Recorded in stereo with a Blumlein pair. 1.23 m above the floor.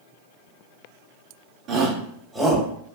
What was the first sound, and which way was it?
A shout, 30° right.